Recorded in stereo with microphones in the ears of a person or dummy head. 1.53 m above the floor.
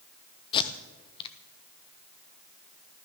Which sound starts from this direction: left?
Tape being pulled, at 0.5 s.